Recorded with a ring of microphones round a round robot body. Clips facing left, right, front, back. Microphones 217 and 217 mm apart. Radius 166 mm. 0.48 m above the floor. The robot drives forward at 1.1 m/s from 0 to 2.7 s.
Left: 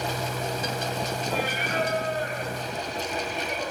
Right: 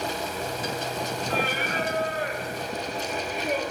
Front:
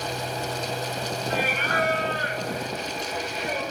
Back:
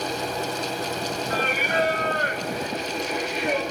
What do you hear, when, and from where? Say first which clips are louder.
1.3 s singing: right 2 dB, back 2 dB; 65° right, 0.7 m; by 3.6 s 155° right, 1.4 m